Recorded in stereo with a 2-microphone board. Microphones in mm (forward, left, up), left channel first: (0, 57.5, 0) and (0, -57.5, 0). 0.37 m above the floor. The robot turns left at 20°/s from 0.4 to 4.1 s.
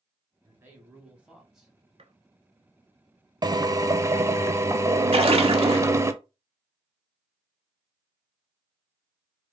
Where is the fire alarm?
I don't hear a fire alarm.